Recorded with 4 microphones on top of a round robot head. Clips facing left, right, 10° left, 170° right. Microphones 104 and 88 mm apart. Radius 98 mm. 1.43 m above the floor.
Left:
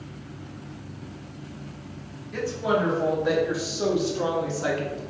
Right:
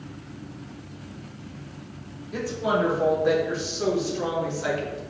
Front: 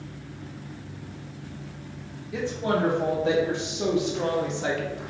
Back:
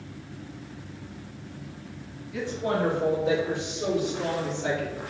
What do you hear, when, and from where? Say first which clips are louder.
2.3 s a woman speaking: even, front 2 dB; 15° right, 3 m; by 5.0 s 45° left, 2 m